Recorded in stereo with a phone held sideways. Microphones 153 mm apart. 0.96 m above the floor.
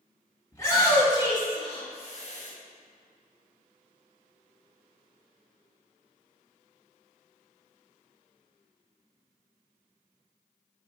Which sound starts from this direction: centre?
A shout, at 0.5 s.